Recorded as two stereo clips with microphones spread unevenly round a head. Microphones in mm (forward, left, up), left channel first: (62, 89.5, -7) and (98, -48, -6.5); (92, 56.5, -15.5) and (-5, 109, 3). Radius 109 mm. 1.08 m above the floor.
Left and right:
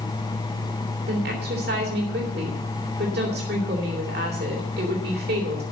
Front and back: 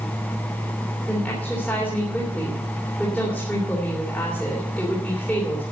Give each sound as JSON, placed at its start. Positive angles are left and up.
{"t": 1.1, "sound": "a woman speaking", "azimuth_deg": -115, "distance_m": 3.0}